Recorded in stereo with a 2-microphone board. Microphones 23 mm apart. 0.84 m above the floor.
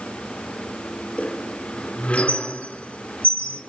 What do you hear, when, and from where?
1.2 s a squeak: 70° left (ahead or behind), 3 m